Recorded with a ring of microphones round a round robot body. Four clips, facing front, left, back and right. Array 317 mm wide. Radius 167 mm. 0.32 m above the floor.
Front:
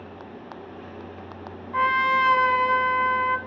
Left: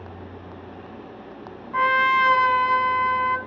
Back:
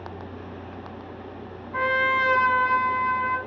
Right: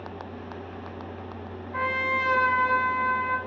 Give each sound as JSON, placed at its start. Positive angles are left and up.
{"t": 1.7, "sound": "a trumpet", "azimuth_deg": 60, "distance_m": 2.5}